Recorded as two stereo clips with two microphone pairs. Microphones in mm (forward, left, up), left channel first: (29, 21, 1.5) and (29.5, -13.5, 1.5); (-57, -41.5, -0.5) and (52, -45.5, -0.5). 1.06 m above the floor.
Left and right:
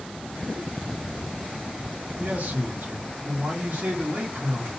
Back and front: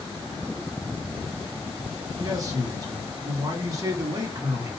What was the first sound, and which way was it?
A man speaking, 60° right.